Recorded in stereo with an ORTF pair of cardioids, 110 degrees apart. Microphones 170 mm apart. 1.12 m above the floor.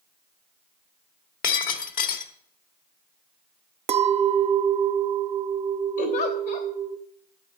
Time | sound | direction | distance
1.4 | breaking glass | 55° left | 1.7 m
3.9 | a clink | 35° right | 0.7 m
6.0 | a giggle | 70° left | 3 m